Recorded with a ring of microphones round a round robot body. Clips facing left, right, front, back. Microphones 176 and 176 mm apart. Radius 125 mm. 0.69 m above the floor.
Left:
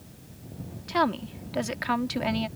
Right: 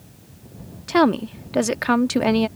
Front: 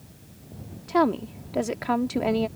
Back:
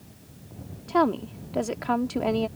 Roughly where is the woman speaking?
Right.